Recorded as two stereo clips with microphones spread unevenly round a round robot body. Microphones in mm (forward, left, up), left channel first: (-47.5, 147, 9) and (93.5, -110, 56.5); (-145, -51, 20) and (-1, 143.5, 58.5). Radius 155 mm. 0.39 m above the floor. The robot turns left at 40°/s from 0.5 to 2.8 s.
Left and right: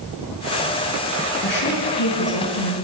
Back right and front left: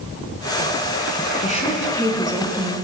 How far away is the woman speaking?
About 4 m.